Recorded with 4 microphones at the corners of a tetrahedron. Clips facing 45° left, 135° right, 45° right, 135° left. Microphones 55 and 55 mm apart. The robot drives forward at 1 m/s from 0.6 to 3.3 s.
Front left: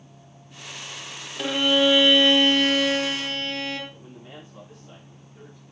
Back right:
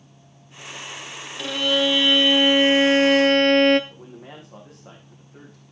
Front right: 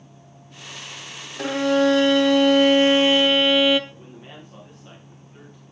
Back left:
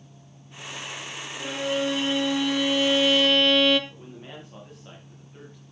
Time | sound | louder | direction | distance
1.4 | a violin | front left 1 dB, front right 8 dB | 25° right | 1.7 m
3.9 | a man speaking | back right 2 dB, even | 135° right | 6 m